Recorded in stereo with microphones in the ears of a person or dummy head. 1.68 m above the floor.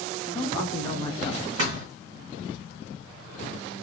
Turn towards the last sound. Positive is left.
turn(degrees=-40)  # may be behind; listen again after turning